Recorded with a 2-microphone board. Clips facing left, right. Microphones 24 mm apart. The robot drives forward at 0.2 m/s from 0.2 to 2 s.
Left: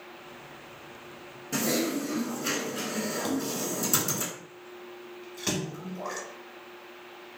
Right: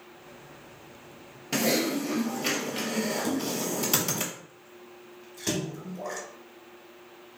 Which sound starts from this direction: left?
A splash, at 3.2 s.